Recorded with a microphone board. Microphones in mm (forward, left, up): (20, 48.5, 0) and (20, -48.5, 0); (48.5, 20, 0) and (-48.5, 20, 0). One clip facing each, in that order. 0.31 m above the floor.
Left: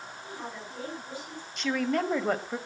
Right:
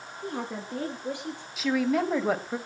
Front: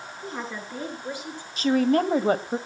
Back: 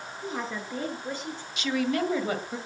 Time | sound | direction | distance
0.2 | a woman speaking | 95° right | 5.5 m
1.6 | a woman speaking | 5° right | 1.8 m